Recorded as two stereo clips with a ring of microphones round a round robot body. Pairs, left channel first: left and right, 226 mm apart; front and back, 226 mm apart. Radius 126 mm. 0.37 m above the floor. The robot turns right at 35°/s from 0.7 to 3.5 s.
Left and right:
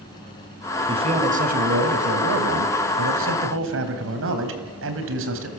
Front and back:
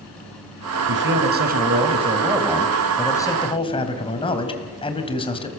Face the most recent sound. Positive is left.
turn(degrees=-65)